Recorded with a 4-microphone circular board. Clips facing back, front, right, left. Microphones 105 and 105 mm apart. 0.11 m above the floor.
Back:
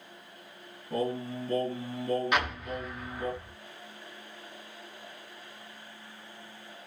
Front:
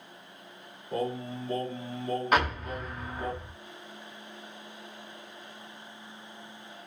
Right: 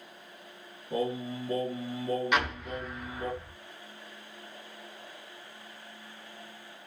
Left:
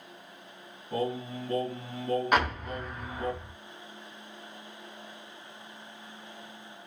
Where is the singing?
155° right, 2.0 m.